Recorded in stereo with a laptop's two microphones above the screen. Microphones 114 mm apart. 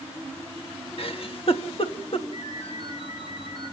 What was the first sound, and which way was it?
A giggle, 55° left (ahead or behind).